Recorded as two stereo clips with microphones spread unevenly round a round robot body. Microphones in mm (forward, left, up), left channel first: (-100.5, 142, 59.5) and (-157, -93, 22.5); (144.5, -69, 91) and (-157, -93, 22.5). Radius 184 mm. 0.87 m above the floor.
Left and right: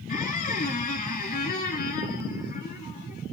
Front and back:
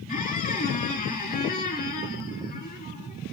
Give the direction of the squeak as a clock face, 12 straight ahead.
11 o'clock.